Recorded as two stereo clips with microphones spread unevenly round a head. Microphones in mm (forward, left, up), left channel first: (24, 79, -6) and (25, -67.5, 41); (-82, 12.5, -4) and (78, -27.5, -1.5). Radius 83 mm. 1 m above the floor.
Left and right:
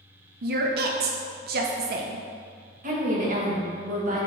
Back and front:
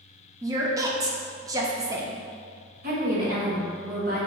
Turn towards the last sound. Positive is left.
turn(degrees=-45)